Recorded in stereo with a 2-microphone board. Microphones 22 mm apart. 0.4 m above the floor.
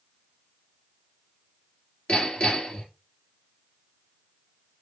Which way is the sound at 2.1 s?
70° left (ahead or behind).